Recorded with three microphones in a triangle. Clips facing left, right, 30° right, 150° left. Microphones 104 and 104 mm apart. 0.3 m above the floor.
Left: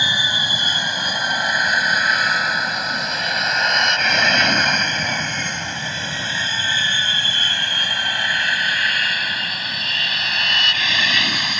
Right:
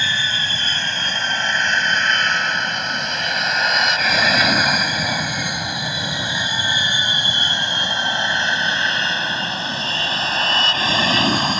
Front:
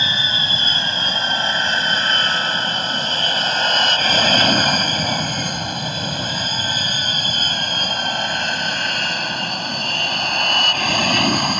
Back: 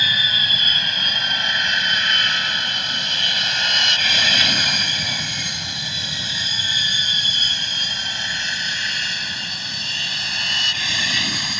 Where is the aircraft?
20° left; by 11.6 s 45° right.